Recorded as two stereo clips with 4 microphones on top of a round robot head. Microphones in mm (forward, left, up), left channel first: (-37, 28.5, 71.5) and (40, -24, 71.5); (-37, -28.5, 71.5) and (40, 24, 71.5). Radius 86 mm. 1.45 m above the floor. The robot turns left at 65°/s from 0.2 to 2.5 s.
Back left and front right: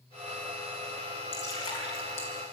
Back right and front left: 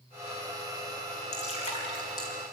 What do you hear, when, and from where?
1.3 s dripping: 145° right, 4 m; by 2.3 s 155° left, 4 m